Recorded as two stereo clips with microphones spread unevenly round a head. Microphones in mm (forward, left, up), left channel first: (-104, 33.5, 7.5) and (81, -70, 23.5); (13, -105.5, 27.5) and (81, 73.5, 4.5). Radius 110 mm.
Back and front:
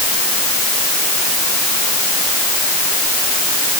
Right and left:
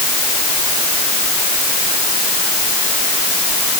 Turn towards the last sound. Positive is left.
No sound to turn to.